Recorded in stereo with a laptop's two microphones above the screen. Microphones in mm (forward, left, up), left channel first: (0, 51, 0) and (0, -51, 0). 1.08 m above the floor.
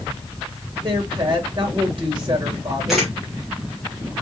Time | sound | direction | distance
0.8 | a woman speaking | 45° right (ahead or behind) | 1.9 m
2.9 | a camera shutter | centre (ahead or behind) | 2.5 m